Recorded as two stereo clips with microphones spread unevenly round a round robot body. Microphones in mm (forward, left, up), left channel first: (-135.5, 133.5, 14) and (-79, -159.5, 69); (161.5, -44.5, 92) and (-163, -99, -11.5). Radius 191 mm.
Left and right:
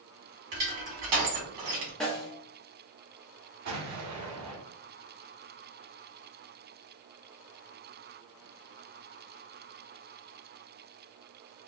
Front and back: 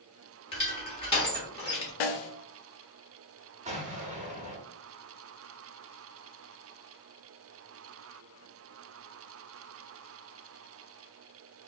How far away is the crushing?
About 2 m.